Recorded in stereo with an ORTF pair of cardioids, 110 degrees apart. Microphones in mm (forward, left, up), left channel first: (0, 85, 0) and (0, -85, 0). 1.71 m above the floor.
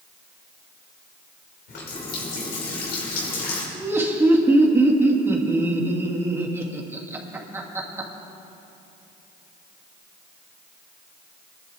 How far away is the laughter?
About 2.5 m.